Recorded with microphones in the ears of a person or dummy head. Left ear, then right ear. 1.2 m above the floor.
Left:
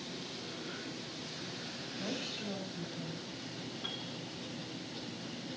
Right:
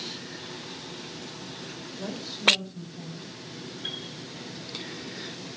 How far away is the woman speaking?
About 5.5 m.